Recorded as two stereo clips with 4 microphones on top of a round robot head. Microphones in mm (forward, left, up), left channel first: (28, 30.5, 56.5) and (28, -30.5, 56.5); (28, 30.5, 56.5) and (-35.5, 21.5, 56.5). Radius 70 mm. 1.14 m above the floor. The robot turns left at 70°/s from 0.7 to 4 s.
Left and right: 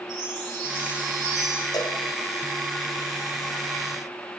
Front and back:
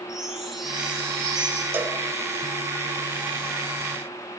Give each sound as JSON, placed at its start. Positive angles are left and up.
{"t": 0.1, "sound": "a chime", "azimuth_deg": -90, "distance_m": 4.0}
{"t": 1.7, "sound": "a cowbell", "azimuth_deg": 130, "distance_m": 1.3}